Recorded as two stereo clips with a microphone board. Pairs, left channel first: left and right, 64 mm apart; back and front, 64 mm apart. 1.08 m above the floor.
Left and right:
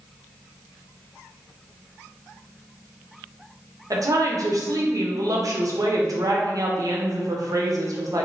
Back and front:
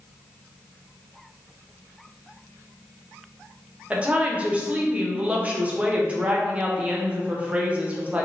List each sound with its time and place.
3.9 s a woman speaking: 70° right, 0.6 m